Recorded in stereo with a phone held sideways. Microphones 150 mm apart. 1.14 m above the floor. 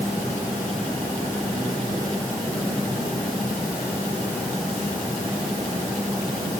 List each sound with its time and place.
Only background noise.